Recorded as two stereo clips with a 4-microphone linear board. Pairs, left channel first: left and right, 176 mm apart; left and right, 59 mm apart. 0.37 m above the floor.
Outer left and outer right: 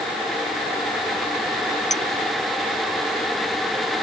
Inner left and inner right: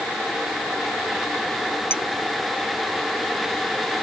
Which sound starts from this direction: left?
A clink, at 1.9 s.